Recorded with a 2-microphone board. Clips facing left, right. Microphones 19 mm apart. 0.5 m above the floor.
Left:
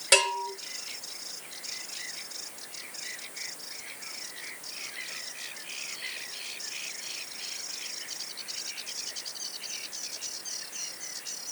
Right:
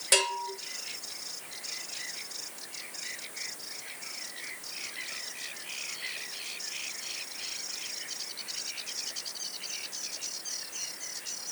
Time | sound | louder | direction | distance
0.1 | a bell | left 3 dB | 15° left (ahead or behind) | 1.1 m